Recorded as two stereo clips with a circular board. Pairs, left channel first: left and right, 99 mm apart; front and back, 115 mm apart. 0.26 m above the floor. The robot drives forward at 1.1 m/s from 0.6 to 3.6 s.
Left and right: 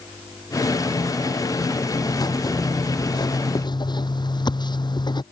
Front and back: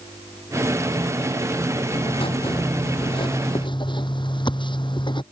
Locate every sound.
1.9 s writing: 40° left; by 5.2 s 45° left